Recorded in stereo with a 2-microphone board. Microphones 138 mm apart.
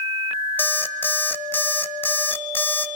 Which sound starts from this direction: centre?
An alarm clock, at 0.6 s.